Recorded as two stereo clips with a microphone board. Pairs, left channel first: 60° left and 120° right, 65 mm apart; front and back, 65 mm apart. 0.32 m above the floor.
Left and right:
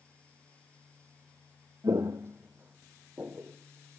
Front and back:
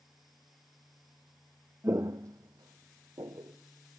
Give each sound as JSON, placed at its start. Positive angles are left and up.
{"t": 1.8, "sound": "footsteps", "azimuth_deg": -135, "distance_m": 0.6}